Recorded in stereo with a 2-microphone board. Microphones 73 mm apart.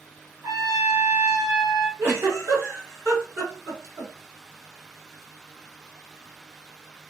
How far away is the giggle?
About 1.8 m.